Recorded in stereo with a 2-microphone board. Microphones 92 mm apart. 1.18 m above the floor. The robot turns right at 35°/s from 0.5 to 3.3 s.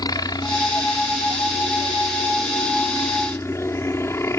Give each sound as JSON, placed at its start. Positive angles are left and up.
{"t": 0.0, "sound": "a helicopter", "azimuth_deg": 50}